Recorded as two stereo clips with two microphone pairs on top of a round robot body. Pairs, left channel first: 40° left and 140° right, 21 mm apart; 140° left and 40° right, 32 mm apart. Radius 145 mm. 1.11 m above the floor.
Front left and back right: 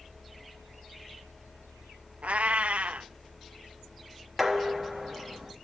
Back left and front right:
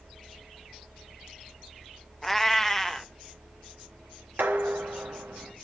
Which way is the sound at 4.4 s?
45° right.